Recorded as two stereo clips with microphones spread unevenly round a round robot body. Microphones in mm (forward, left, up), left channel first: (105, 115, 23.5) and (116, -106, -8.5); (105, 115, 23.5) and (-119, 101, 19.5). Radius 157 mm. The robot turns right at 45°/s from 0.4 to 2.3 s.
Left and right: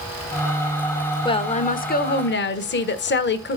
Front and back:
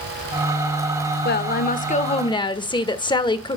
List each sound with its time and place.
1.2 s a woman speaking: 20° left, 1.0 m; by 3.6 s 70° left, 1.0 m